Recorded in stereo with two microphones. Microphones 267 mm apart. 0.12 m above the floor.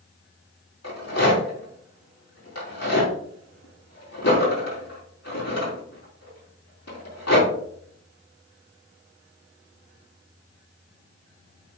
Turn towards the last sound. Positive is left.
turn(degrees=70)  # may be behind; listen again after turning